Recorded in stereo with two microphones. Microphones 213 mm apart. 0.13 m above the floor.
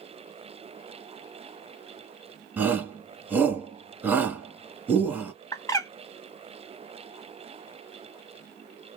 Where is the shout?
10° right (ahead or behind), 1.1 m.